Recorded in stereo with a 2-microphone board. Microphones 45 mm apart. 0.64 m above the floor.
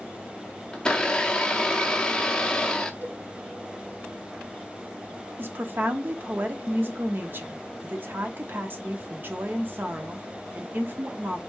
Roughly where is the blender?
Centre.